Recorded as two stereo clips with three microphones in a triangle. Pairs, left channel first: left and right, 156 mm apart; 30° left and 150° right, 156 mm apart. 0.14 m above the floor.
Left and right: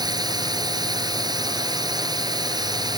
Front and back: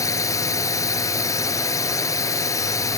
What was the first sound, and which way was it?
A drone, 35° right.